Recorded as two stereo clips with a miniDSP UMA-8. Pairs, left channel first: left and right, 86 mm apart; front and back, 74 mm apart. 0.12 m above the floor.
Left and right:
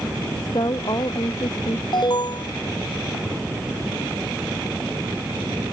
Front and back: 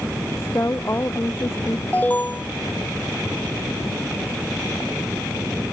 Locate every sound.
0.4 s a woman speaking: 55° left
1.9 s an alarm: 65° left